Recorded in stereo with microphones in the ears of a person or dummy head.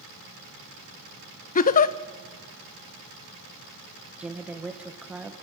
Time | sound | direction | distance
1.6 | a giggle | 50° left (ahead or behind) | 0.6 m
4.2 | a woman speaking | centre (ahead or behind) | 1.4 m